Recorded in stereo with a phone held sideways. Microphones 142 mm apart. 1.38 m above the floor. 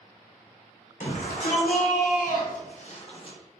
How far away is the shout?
About 1.2 m.